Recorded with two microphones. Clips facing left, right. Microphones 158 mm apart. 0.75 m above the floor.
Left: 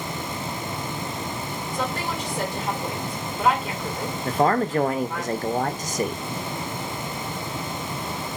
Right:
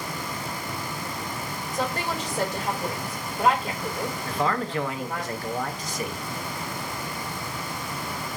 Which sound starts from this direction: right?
A woman speaking, at 1.7 s.